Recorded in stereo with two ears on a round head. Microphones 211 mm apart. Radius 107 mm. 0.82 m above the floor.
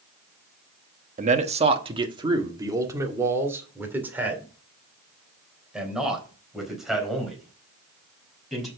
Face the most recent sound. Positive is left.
turn(degrees=0)  # may be behind; listen again after turning